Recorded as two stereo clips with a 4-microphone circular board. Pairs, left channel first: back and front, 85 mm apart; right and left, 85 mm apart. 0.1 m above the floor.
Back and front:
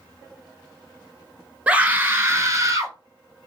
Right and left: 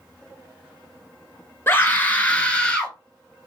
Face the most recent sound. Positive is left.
turn(degrees=-15)